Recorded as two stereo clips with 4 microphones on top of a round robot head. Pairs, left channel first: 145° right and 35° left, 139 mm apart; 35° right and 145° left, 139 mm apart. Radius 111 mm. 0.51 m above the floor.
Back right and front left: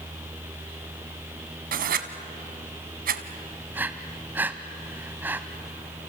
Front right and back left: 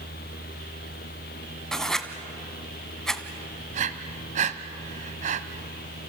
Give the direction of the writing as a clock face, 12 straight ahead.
10 o'clock.